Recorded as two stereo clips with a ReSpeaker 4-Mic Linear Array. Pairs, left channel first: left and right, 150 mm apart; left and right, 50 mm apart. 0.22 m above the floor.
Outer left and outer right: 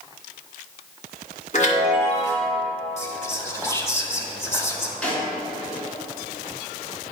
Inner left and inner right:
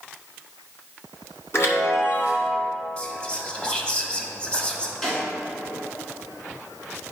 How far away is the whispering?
About 1.0 m.